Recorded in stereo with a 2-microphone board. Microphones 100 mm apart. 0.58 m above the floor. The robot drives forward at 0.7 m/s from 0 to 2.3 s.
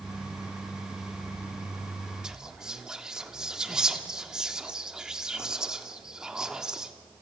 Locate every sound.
2.2 s whispering: 5° right (ahead or behind), 1.5 m